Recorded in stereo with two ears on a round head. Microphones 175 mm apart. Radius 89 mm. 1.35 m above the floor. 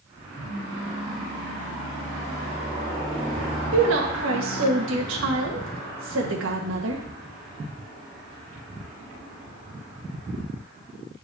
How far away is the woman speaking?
About 1.5 m.